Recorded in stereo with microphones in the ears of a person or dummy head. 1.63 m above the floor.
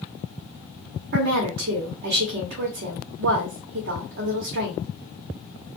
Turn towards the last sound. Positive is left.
turn(degrees=-50)  # may be behind; listen again after turning